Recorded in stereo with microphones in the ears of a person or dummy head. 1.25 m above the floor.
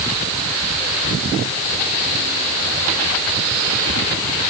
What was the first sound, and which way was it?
Only background noise.